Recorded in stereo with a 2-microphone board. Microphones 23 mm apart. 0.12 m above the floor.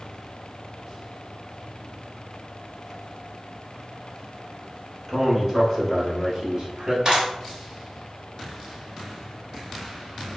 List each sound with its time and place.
5.1 s a man speaking: 5° left (ahead or behind), 1.4 m; by 7.0 s 30° right (ahead or behind), 1.7 m
7.0 s a clap: 30° right (ahead or behind), 1.5 m